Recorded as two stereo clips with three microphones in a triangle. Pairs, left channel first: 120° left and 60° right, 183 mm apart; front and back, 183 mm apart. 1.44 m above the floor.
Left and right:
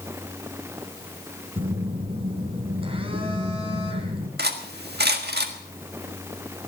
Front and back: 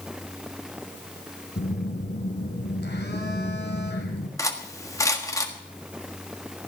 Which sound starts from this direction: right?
Cutlery clinking, at 4.4 s.